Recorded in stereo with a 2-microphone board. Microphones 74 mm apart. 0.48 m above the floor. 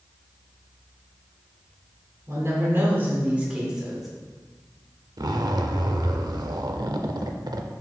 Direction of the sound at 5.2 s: 65° right (ahead or behind).